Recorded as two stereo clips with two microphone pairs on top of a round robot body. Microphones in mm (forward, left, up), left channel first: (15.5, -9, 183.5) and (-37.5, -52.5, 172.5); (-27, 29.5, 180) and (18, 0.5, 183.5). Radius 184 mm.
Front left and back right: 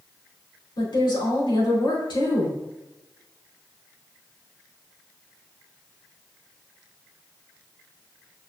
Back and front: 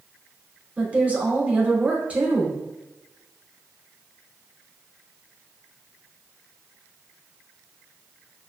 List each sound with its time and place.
0.8 s a woman speaking: 35° left, 3 m